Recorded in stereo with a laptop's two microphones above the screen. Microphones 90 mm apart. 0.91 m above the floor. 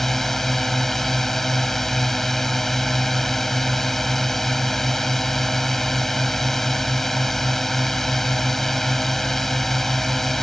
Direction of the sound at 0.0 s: 5° left (ahead or behind).